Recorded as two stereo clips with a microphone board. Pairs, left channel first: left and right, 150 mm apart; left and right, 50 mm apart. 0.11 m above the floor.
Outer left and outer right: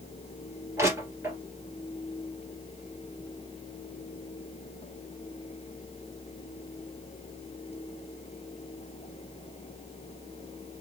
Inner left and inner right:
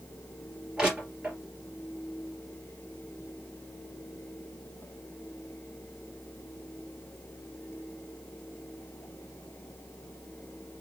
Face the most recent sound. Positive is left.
turn(degrees=-20)  # may be behind; listen again after turning